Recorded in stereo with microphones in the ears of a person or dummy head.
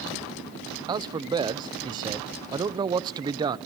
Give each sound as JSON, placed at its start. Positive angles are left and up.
{"t": 0.9, "sound": "a man speaking", "side_deg": -25, "distance_m": 0.6}